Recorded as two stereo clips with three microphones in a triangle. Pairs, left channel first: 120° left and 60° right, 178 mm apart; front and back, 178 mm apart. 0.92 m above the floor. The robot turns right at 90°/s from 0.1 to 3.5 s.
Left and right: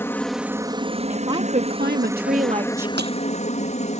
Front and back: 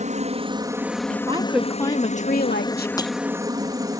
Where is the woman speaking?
140° right; by 2.9 s 20° left.